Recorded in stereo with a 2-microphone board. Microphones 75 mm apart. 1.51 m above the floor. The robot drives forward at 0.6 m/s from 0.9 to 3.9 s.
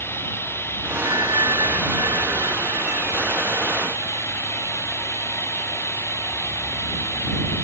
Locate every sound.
0.0 s running water: 30° left (ahead or behind); by 7.6 s 35° left (ahead or behind)
1.1 s a bell: 70° right (ahead or behind)